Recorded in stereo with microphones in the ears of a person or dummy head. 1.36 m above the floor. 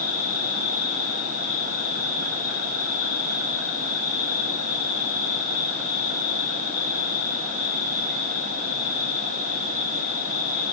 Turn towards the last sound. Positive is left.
turn(degrees=-85)